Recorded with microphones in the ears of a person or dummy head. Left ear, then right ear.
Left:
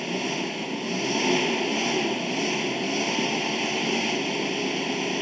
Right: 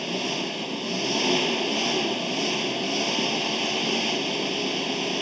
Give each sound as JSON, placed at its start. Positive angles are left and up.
{"t": 0.0, "sound": "an engine running", "side_deg": -10}